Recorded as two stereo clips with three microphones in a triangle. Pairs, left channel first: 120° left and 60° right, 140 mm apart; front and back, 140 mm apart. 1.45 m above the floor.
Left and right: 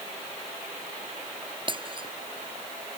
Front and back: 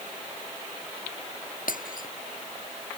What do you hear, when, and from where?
1.7 s breaking glass: 5° right